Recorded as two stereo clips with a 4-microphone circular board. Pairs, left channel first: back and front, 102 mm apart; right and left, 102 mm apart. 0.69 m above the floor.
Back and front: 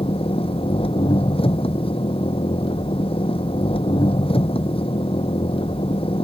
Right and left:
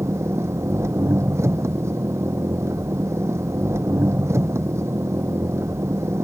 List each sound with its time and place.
0.0 s an engine running: 155° left